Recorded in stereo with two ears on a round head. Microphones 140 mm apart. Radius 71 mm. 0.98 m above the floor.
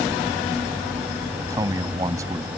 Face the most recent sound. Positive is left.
turn(degrees=-20)  # may be behind; listen again after turning